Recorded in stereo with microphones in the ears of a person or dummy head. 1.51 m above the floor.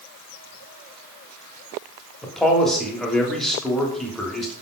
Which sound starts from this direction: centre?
A man speaking, at 2.2 s.